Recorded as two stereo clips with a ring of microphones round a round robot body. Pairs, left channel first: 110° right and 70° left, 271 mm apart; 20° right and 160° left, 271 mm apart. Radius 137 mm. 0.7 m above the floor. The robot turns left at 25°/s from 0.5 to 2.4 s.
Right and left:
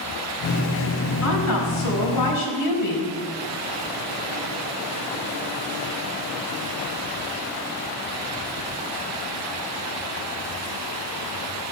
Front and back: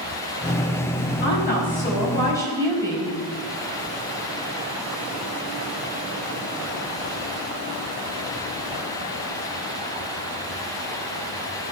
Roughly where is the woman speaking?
Right.